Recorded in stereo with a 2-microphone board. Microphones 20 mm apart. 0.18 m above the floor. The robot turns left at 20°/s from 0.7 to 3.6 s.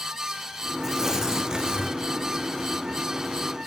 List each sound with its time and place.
0.8 s tearing paper: 20° right (ahead or behind), 3 m; by 2.0 s 40° right (ahead or behind), 3 m